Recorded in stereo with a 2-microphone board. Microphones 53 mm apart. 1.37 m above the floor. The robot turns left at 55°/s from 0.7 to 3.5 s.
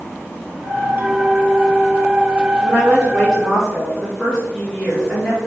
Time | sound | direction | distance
1.0 | a clink | 140° right | 1.2 m
2.6 | a woman speaking | 40° left | 2.5 m